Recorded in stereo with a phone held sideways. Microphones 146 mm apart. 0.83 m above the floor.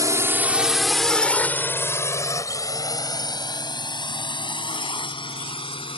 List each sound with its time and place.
0.0 s a drone: 25° right (ahead or behind); by 6.0 s 35° left (ahead or behind)